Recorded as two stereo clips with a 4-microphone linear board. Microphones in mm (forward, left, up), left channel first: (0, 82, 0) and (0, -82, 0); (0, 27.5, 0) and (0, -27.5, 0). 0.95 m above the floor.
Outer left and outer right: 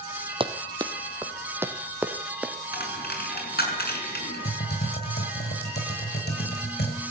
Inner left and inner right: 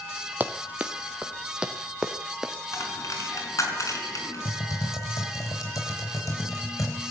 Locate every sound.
0.4 s running footsteps: 30° right (ahead or behind), 1.4 m; by 2.5 s 5° right (ahead or behind), 2.5 m
2.7 s a dropped coin: 75° left (ahead or behind), 5.5 m
4.5 s typing on a keyboard: 80° left, 5.5 m